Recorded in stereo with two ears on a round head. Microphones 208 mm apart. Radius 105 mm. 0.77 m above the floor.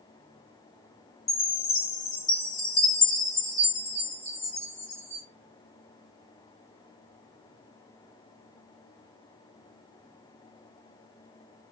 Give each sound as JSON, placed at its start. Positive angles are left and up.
{"t": 1.3, "sound": "a chime", "side_deg": 10, "distance_m": 2.5}